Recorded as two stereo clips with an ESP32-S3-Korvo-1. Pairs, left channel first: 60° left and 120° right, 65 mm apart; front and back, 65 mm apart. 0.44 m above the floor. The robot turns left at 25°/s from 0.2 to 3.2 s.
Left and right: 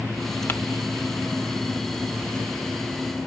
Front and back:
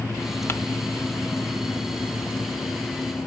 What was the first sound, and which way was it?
Crumpling, 25° left.